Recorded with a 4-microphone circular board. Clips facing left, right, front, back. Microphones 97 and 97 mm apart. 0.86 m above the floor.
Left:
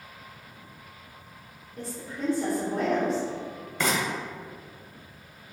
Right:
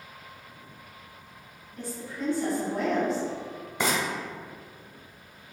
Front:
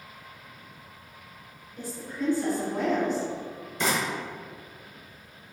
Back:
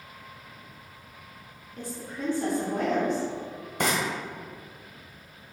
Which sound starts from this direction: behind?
Frying, at 3.8 s.